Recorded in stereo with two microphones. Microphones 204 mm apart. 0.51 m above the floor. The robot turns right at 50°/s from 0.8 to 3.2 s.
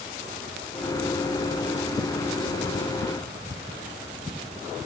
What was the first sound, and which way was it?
Only background noise.